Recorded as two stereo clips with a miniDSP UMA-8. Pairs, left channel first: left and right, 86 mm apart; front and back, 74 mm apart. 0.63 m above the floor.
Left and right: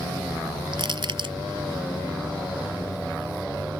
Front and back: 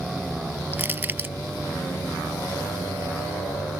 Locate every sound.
0.7 s crushing: 115° right